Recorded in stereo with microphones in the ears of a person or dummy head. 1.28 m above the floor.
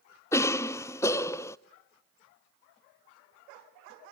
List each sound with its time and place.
0.3 s a cough: 15° left (ahead or behind), 0.6 m